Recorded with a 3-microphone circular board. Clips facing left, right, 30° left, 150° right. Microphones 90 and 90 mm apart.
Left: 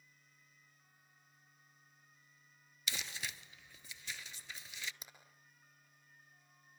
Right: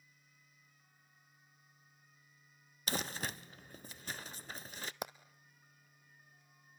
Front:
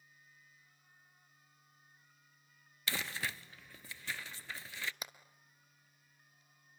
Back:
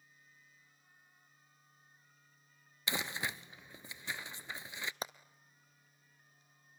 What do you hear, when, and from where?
2.9 s crumpling: 85° right, 0.6 m
5.0 s hammering: 95° right, 1.2 m